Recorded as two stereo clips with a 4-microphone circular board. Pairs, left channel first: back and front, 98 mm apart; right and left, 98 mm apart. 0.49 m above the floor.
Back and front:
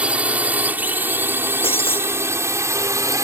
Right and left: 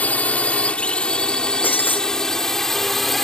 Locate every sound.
0.0 s a drone: 50° right; by 3.2 s 5° right
1.6 s breaking glass: 160° right